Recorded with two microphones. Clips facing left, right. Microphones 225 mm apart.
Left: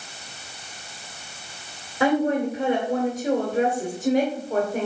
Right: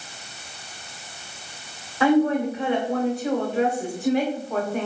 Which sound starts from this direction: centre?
A woman speaking, at 2.0 s.